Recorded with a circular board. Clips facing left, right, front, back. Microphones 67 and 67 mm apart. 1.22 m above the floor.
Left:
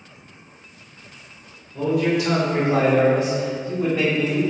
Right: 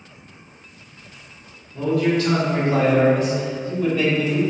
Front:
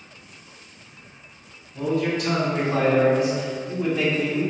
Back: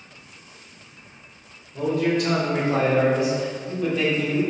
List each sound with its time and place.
1.7 s a man speaking: 165° left, 1.2 m; by 4.4 s 30° left, 0.6 m